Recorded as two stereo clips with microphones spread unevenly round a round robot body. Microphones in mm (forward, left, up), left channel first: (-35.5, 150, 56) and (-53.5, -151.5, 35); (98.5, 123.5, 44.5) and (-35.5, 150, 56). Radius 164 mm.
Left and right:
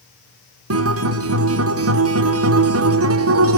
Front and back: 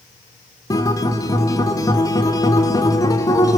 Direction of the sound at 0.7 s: 70° right.